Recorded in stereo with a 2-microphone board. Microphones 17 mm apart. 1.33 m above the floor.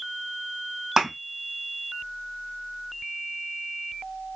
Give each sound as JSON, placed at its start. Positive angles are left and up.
{"t": 1.0, "sound": "a thud", "side_deg": -35, "distance_m": 2.0}